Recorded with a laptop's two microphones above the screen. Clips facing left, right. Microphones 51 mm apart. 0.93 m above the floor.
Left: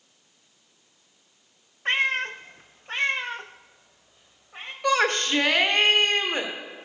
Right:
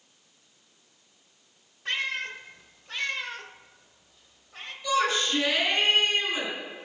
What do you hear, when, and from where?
1.9 s a cat meowing: 35° left (ahead or behind), 0.6 m; by 4.7 s 20° left (ahead or behind), 1.6 m
4.8 s a shout: 60° left (ahead or behind), 2.5 m